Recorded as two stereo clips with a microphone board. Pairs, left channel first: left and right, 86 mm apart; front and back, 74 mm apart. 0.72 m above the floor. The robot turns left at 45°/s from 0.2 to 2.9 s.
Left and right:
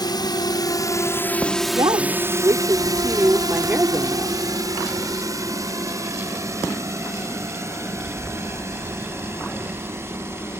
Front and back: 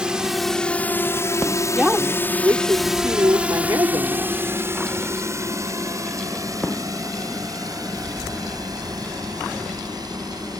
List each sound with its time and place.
0.0 s a drone: 105° left; by 10.6 s 150° right
1.8 s a woman speaking: 95° right; by 4.5 s 145° right